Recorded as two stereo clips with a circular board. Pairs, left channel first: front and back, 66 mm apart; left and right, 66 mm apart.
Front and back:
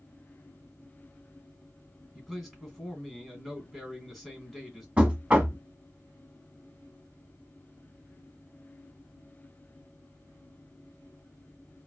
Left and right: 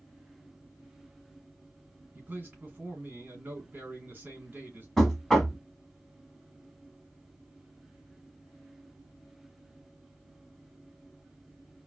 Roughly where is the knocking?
Behind left.